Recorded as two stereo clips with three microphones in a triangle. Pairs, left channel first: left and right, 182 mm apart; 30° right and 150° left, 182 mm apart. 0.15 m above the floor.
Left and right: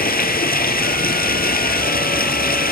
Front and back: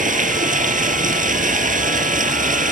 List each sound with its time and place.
0.0 s running water: 115° left, 1.1 m